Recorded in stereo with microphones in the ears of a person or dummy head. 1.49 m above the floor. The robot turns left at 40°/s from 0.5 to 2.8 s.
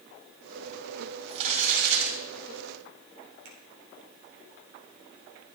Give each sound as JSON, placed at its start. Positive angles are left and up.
{"t": 1.3, "sound": "crumpling", "azimuth_deg": -35, "distance_m": 5.5}
{"t": 3.5, "sound": "a finger snap", "side_deg": -80, "distance_m": 4.0}